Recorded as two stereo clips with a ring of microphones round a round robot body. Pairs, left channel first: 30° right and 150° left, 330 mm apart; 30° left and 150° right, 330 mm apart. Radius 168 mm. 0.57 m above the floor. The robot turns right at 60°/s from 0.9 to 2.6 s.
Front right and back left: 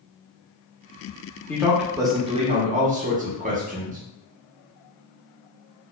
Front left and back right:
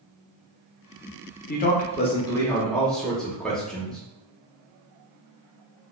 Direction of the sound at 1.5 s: 50° left.